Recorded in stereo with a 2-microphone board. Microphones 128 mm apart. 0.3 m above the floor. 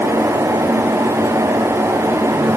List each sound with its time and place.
Only background noise.